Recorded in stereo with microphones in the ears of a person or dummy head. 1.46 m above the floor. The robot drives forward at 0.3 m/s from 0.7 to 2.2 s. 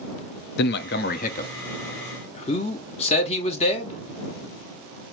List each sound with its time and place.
0.6 s a man speaking: 45° left (ahead or behind), 0.5 m; by 4.0 s 30° left (ahead or behind), 0.8 m